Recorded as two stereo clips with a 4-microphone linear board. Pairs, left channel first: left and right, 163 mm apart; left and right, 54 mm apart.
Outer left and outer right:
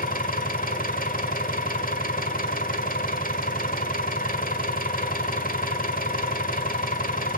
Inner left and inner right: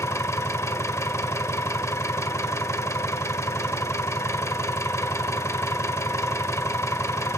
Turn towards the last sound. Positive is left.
turn(degrees=60)  # may be behind; listen again after turning